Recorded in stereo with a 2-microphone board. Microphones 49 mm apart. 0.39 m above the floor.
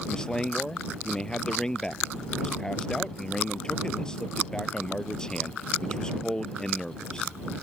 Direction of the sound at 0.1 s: 10° left (ahead or behind).